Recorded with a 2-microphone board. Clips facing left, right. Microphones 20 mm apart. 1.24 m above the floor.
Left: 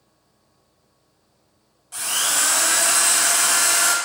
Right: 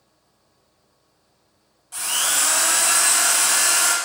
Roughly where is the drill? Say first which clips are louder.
Even; centre.